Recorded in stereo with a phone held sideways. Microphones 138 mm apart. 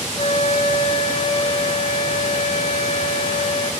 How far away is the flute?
About 0.7 m.